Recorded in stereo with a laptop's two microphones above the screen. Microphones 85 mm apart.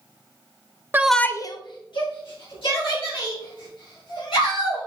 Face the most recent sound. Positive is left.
turn(degrees=85)